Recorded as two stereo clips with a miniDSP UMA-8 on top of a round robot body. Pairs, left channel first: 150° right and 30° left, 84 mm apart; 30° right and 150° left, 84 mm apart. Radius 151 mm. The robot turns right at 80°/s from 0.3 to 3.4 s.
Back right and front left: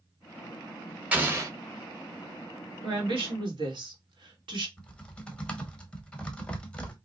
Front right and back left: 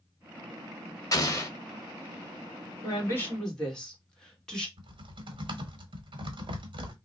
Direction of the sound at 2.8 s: 5° left.